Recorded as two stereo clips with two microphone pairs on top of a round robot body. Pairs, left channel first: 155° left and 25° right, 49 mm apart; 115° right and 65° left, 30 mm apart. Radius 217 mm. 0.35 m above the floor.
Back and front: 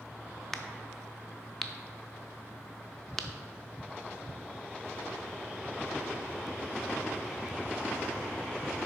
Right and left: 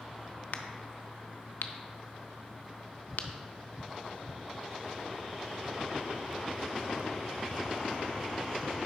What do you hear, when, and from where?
0.5 s a crack: 125° right, 0.6 m